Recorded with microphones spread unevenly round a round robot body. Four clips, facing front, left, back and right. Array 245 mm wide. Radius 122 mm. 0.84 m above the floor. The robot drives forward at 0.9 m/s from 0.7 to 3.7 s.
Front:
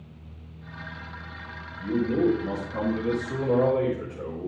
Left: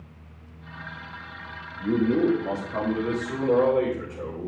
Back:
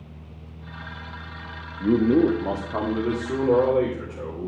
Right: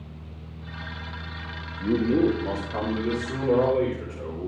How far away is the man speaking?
About 1.0 m.